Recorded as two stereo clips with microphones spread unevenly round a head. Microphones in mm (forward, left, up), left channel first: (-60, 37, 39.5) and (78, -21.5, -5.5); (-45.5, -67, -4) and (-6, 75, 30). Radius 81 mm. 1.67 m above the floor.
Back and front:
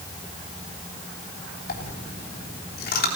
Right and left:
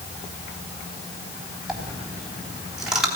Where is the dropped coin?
155° left, 3.5 m.